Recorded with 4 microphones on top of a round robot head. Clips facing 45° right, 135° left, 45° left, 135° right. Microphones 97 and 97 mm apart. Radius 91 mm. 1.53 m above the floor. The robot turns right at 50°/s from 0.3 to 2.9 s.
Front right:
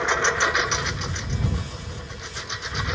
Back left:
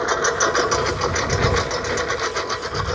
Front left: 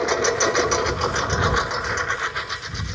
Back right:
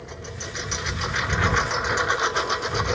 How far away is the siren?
No siren in this recording.